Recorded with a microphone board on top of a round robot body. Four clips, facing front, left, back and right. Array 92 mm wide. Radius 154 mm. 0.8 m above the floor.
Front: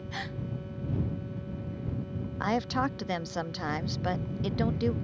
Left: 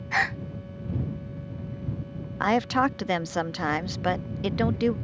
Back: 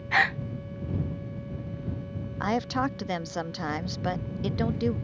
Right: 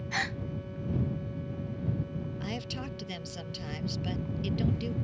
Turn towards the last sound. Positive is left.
turn(degrees=90)